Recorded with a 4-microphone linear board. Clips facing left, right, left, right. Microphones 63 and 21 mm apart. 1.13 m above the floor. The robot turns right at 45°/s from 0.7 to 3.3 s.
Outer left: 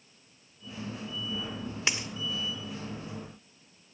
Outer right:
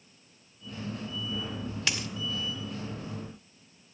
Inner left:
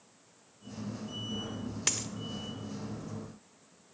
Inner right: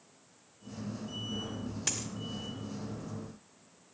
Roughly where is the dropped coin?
Left.